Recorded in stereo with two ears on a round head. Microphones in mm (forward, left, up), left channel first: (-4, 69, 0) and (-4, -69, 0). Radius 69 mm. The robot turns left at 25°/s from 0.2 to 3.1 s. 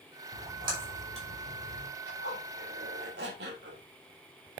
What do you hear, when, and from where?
0.3 s a splash: 20° right (ahead or behind), 4 m; by 1.9 s 60° right (ahead or behind), 4 m
2.1 s a zipper: 70° right (ahead or behind), 3 m; by 3.8 s 80° right, 3 m